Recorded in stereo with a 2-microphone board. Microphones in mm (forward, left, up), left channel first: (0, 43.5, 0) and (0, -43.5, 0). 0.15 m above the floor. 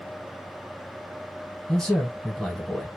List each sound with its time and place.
1.7 s a man speaking: 10° left (ahead or behind), 1.3 m